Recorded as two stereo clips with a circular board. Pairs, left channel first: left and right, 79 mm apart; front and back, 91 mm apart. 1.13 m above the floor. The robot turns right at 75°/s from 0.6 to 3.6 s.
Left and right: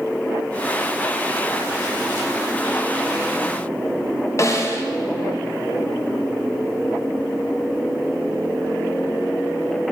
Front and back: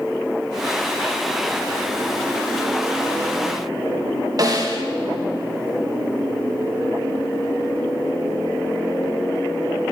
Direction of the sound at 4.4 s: 140° left.